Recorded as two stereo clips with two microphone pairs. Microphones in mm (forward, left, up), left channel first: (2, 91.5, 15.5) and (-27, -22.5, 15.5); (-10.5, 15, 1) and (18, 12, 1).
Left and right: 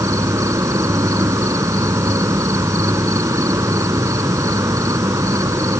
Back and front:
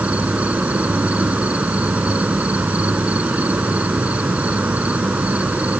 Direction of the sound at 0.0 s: 40° right.